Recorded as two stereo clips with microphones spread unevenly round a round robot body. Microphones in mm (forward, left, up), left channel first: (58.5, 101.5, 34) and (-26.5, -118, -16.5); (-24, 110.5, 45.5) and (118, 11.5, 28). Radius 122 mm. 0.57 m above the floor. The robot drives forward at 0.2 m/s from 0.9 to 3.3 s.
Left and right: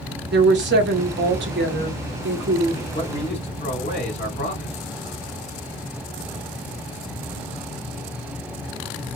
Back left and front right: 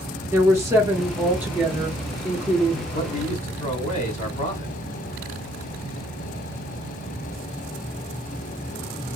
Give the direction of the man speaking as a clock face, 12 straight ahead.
8 o'clock.